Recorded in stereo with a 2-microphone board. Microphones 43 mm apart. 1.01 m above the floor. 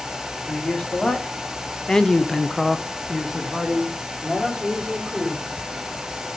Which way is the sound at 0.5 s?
15° left (ahead or behind).